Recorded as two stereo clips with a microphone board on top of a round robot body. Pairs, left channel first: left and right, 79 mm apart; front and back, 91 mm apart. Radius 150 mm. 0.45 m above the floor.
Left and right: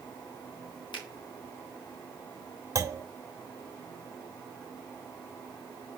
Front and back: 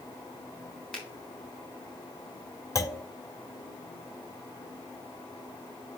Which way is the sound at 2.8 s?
45° right.